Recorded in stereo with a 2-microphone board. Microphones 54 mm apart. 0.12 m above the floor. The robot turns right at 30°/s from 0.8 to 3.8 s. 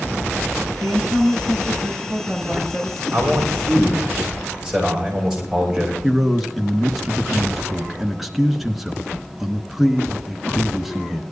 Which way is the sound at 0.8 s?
60° right.